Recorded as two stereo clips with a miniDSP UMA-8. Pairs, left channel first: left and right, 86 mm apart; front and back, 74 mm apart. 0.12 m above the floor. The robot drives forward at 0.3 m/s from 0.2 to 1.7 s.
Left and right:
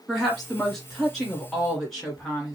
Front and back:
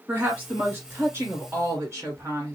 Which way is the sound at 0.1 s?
170° left.